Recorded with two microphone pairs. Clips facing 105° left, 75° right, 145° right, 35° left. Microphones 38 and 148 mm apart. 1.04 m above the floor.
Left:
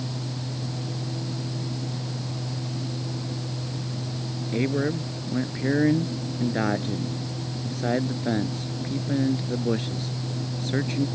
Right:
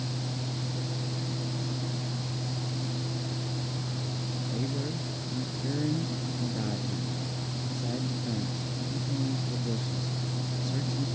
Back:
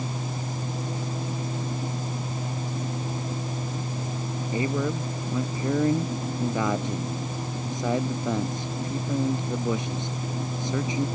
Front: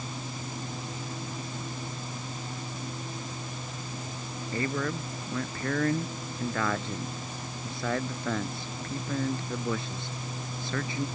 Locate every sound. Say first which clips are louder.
4.5 s a man speaking: left 11 dB, back 4 dB; 140° left